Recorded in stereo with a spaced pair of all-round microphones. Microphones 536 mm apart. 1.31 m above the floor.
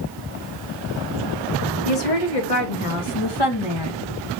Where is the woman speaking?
85° left, 1.7 m; by 4.0 s 45° left (ahead or behind), 1.3 m.